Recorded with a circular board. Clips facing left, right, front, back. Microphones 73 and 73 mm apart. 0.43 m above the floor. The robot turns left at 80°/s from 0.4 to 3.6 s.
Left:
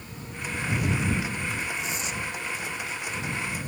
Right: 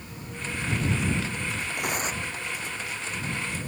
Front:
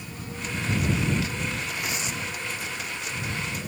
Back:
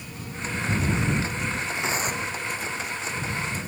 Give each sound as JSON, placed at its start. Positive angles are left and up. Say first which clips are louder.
{"t": 1.8, "sound": "tearing paper", "louder": "right 2 dB, back 4 dB", "azimuth_deg": -110}